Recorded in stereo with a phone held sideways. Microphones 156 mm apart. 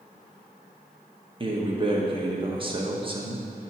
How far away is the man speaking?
About 0.9 m.